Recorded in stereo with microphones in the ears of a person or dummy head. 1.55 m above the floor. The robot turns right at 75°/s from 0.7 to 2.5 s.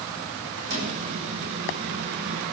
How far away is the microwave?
About 9 m.